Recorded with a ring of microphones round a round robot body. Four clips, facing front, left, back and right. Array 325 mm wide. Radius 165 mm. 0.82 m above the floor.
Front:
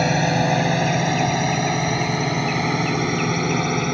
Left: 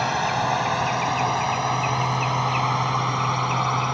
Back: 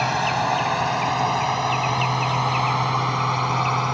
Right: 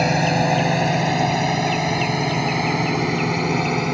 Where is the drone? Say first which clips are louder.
Right 4 dB, front 2 dB; 45° right; by 3.9 s 50° right.